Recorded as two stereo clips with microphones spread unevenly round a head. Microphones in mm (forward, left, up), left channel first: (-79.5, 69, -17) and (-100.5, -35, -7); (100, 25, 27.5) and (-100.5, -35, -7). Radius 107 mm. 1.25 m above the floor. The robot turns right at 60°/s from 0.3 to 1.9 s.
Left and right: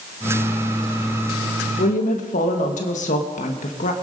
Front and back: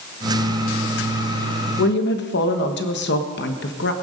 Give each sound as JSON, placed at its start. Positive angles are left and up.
{"t": 1.8, "sound": "a woman speaking", "azimuth_deg": 55, "distance_m": 1.4}